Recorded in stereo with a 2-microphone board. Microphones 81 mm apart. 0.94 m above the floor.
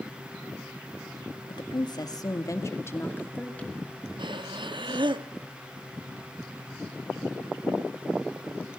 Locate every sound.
1.5 s a woman speaking: 70° left (ahead or behind), 1.6 m; by 3.9 s 15° left (ahead or behind), 2.5 m
4.2 s breathing: 80° right, 0.7 m